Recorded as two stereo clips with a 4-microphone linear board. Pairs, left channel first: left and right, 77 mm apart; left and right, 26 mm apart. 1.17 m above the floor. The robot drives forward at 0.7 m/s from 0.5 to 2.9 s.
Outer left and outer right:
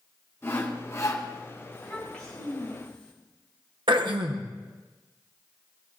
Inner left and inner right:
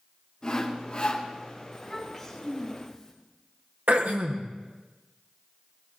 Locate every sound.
0.4 s sawing: 30° left (ahead or behind), 1.7 m; by 1.3 s 45° left (ahead or behind), 1.3 m
1.7 s a child speaking: 10° left (ahead or behind), 6.5 m
3.9 s throat clearing: 80° right, 1.0 m